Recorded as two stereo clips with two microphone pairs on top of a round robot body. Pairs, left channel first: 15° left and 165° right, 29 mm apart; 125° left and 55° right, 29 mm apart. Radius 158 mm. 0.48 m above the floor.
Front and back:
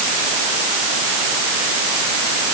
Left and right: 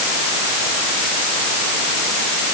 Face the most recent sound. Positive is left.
No sound to turn to.